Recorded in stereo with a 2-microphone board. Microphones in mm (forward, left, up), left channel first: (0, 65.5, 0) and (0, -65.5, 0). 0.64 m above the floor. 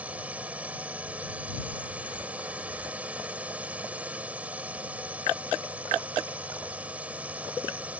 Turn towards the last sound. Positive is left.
turn(degrees=-10)  # may be behind; listen again after turning